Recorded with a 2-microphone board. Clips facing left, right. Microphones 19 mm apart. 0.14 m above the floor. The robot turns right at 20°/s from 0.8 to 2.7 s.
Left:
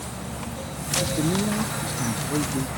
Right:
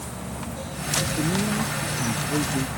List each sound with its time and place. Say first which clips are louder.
1.0 s a man speaking: left 2 dB; 155° left; by 2.7 s 170° right